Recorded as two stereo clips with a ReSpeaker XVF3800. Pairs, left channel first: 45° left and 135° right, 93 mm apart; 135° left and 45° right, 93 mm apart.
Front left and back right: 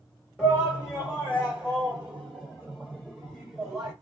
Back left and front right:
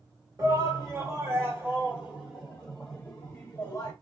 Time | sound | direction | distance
0.4 | a shout | 50° right | 1.8 m